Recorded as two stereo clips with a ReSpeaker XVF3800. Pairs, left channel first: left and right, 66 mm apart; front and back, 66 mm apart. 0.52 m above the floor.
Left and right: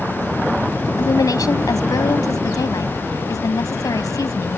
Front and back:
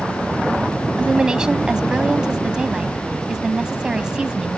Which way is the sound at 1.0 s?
105° left.